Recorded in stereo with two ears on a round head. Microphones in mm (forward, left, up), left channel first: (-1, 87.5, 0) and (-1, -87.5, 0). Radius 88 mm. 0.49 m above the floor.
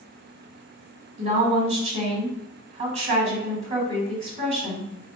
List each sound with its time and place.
1.2 s a woman speaking: 35° right (ahead or behind), 1.4 m